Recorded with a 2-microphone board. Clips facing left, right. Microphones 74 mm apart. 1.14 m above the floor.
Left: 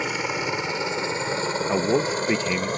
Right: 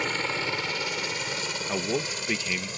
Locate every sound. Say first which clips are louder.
0.0 s a helicopter: left 3 dB; 10° left (ahead or behind); by 2.8 s 45° left (ahead or behind)
1.7 s a man speaking: left 7 dB; 25° left (ahead or behind)